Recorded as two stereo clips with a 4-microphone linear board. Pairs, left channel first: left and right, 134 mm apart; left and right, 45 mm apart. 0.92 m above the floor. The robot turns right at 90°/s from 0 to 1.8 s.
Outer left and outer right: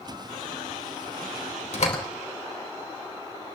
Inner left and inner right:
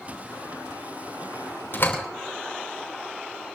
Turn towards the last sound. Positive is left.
turn(degrees=65)  # may be behind; listen again after turning